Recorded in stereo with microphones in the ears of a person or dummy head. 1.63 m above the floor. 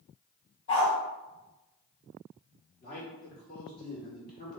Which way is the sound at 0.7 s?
45° left (ahead or behind).